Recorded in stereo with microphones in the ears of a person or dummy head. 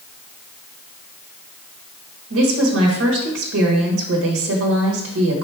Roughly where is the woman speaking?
Right.